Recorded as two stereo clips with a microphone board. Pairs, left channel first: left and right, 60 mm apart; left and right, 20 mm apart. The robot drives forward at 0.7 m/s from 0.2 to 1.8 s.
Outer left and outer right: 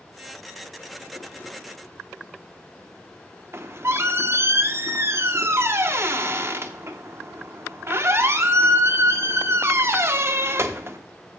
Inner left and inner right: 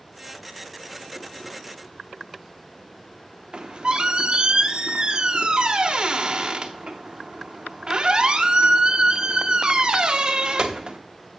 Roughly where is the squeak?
Right.